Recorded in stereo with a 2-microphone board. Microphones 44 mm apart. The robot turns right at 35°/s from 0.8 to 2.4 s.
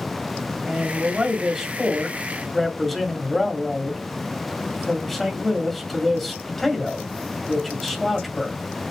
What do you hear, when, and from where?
0.7 s a man speaking: 20° right (ahead or behind), 1.4 m; by 8.6 s 5° left (ahead or behind), 1.4 m